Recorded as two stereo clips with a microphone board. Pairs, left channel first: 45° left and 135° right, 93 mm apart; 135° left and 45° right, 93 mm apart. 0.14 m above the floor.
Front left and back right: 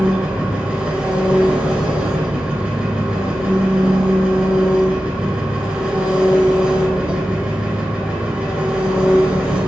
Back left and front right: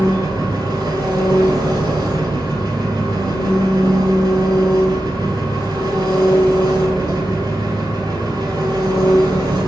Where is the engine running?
60° right, 0.8 m.